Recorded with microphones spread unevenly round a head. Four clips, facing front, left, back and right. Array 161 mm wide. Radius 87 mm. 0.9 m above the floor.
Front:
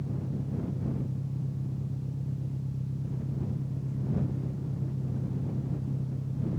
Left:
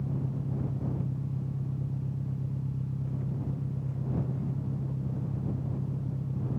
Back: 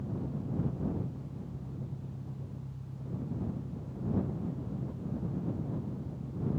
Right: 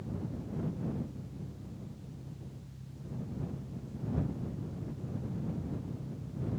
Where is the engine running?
45° left.